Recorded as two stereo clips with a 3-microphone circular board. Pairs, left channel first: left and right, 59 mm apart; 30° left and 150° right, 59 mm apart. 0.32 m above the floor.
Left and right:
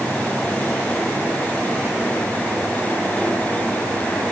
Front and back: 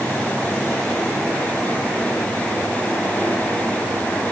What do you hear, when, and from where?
Only background noise.